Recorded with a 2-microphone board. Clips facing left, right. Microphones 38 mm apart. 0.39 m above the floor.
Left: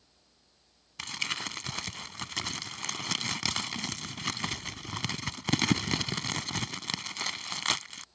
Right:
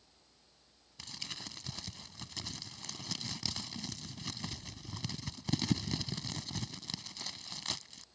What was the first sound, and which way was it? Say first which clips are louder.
Crumpling: left 12 dB; 80° left.